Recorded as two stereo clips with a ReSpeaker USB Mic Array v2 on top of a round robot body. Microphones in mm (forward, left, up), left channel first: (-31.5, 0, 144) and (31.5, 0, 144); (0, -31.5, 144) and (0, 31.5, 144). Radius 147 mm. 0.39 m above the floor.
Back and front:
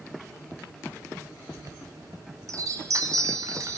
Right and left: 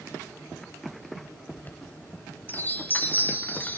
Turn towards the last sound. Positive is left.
turn(degrees=-30)